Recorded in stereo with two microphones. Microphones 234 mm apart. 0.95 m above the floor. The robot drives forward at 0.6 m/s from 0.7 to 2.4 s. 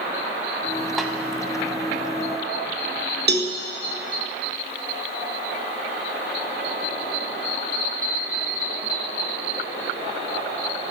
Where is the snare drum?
Centre (ahead or behind), 1.1 m.